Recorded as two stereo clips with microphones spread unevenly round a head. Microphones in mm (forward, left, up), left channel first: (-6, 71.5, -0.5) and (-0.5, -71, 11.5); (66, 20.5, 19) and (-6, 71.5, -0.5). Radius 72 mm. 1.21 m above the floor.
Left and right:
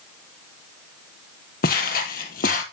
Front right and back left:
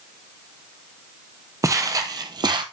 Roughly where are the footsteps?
Left.